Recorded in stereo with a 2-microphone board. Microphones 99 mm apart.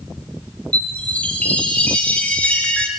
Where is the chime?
15° left (ahead or behind), 1.9 m.